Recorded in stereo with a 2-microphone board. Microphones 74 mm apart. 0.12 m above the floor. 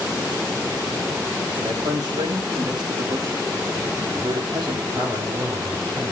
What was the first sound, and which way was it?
A man speaking, 65° right (ahead or behind).